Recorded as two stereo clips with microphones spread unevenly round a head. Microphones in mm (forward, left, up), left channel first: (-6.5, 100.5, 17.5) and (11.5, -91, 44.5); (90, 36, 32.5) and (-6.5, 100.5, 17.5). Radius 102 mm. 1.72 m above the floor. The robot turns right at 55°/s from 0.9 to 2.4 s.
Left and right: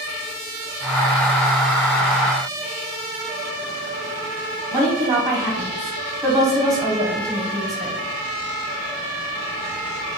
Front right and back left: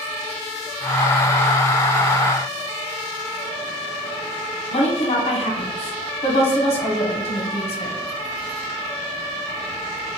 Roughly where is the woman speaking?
Ahead.